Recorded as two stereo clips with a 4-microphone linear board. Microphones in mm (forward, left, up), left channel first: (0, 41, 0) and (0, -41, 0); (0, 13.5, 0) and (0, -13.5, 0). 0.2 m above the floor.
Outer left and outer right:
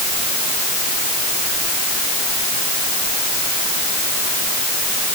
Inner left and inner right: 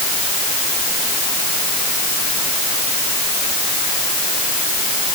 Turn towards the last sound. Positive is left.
No sound to turn to.